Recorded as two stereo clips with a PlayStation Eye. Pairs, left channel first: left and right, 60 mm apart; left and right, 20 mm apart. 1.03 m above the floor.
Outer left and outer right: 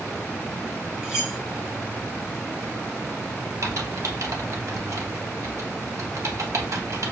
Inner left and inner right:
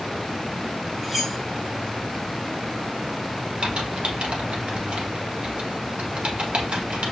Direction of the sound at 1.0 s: 5° right (ahead or behind).